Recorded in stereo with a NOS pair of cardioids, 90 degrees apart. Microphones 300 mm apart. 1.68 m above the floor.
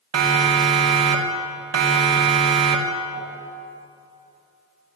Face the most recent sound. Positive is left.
turn(degrees=-45)